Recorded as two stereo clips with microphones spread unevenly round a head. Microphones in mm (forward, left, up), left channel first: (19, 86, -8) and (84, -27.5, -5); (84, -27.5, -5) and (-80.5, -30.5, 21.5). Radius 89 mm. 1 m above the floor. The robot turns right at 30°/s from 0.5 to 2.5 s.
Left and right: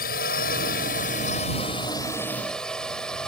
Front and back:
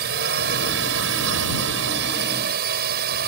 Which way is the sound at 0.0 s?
145° left.